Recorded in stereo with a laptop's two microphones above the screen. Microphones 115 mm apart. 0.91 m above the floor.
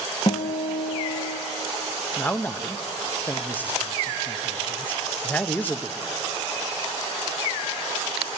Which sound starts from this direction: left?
A guitar, at 0.3 s.